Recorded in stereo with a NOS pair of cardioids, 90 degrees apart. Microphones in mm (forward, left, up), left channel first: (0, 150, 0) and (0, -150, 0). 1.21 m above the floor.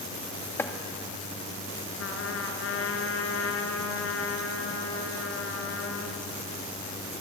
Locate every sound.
0.6 s chopping: 10° left, 2.5 m
2.0 s a trumpet: 55° left, 3.5 m